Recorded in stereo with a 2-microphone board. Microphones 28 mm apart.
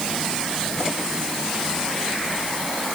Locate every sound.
Only background noise.